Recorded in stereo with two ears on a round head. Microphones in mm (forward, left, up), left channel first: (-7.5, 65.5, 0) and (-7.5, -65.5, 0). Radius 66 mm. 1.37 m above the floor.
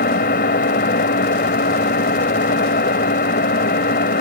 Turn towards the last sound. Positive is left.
turn(degrees=65)  # may be behind; listen again after turning